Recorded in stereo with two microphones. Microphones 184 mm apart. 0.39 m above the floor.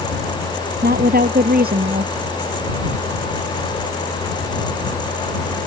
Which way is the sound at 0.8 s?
55° right (ahead or behind).